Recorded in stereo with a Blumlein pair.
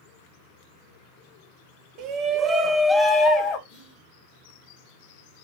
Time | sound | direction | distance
2.0 | a shout | 35° right | 0.8 m
3.7 | whispering | 35° left | 1.1 m